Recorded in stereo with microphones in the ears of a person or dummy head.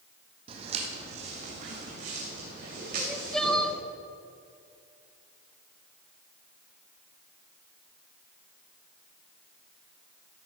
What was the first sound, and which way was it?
Footsteps, 35° right (ahead or behind).